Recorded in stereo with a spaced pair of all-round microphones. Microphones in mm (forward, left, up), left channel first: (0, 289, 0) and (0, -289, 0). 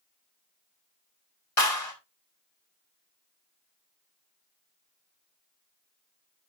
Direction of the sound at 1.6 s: 70° left (ahead or behind).